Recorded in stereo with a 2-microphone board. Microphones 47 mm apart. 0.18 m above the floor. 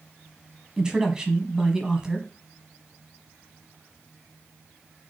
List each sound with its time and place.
0.8 s a man speaking: 15° right (ahead or behind), 1.0 m